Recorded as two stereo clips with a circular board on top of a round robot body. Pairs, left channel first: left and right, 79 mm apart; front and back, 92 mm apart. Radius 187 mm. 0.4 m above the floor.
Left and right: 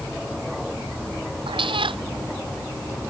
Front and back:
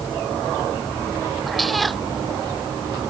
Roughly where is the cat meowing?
Right.